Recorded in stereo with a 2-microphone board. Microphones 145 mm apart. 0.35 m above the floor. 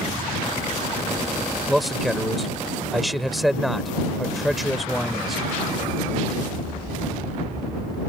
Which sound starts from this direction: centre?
A man speaking, at 1.7 s.